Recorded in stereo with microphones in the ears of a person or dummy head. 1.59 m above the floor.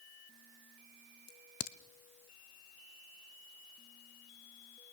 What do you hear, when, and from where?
1.3 s a crack: 50° left (ahead or behind), 0.5 m